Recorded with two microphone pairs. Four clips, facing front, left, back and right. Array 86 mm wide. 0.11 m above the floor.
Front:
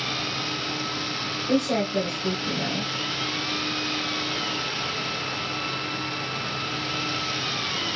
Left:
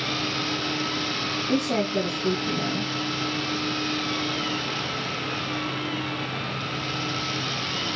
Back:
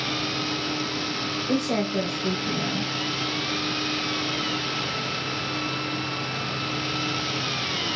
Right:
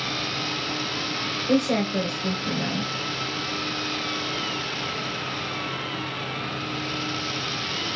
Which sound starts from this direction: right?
A woman speaking, at 1.5 s.